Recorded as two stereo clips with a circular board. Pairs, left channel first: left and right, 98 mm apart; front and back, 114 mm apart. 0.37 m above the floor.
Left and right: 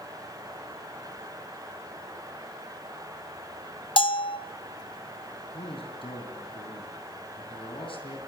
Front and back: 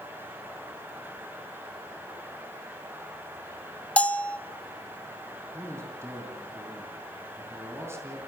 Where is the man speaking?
115° left, 4 m.